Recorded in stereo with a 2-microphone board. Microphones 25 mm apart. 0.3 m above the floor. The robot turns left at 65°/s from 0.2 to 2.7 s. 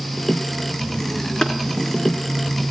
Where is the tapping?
35° left (ahead or behind), 2.5 m; by 1.5 s 40° left (ahead or behind), 2.5 m.